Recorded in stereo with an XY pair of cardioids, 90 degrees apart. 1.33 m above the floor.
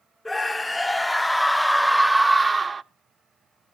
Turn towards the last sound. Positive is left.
turn(degrees=-35)